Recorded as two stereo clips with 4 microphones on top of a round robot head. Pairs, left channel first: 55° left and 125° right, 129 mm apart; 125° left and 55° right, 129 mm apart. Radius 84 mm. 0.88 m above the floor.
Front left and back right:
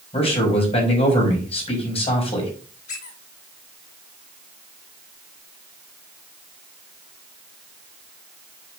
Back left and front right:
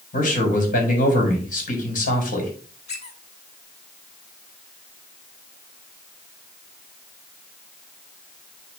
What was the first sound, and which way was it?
A man speaking, 105° left.